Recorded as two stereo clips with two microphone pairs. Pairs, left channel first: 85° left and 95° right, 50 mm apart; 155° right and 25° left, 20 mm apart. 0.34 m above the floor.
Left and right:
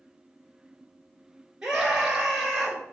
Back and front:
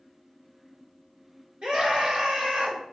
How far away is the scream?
About 4.5 m.